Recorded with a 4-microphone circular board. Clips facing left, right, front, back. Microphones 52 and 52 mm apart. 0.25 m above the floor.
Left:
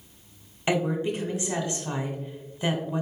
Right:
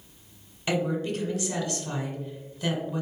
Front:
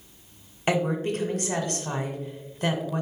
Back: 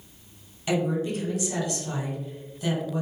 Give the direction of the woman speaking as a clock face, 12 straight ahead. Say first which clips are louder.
Left 2 dB, front 1 dB; 11 o'clock.